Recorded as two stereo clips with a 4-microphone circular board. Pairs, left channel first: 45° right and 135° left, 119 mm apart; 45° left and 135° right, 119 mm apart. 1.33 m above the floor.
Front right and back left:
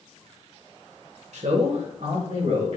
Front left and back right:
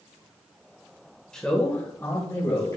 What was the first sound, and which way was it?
A man speaking, 130° left.